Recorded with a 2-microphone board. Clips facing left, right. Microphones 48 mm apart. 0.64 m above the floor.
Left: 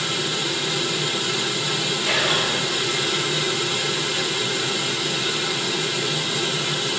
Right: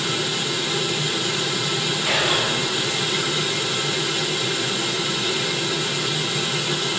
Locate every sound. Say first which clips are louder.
2.0 s whispering: even; 10° right (ahead or behind), 5.5 m